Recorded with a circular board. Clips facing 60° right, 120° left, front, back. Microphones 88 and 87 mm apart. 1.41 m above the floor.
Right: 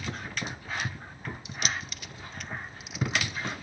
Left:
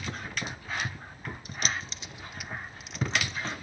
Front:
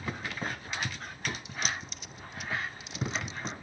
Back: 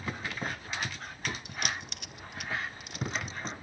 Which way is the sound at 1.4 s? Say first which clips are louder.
Left 1 dB, even; 160° left.